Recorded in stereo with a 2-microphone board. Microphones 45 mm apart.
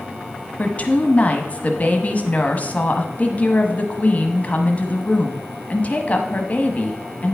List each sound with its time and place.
0.6 s a woman speaking: 35° left (ahead or behind), 1.1 m